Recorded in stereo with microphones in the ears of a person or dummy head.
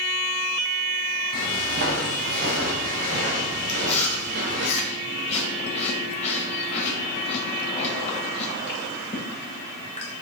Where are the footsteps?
55° right (ahead or behind), 2.5 m; by 4.7 s 45° right (ahead or behind), 4 m.